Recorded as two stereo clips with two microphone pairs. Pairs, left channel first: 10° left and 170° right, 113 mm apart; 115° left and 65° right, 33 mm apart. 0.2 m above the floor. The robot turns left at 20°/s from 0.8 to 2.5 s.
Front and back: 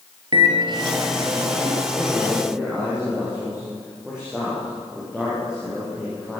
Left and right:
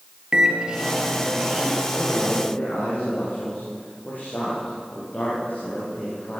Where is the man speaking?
120° left, 10 m; by 6.4 s 105° left, 10 m.